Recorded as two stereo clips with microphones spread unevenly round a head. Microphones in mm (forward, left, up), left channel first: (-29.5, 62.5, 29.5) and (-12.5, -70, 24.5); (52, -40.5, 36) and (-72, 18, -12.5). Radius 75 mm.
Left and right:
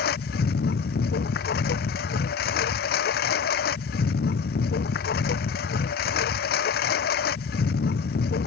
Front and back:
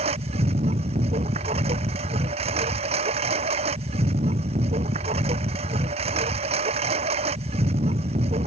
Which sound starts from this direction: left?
A lawn mower, at 0.0 s.